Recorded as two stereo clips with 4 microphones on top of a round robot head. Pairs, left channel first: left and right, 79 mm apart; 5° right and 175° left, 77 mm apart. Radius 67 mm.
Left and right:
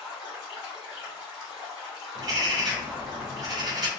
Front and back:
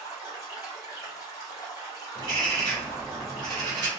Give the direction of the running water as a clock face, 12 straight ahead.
12 o'clock.